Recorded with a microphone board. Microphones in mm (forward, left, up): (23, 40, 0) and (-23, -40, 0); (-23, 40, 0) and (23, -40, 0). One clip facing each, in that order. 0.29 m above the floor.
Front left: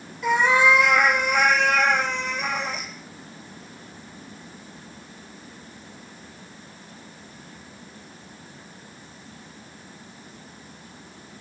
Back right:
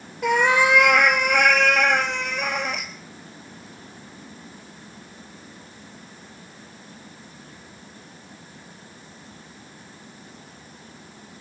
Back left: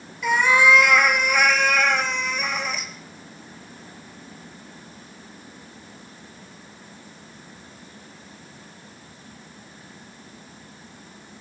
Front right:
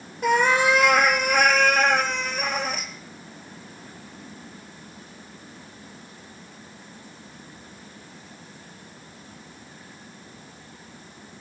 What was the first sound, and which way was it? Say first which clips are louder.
A cat meowing: even, back left 1 dB; 100° right.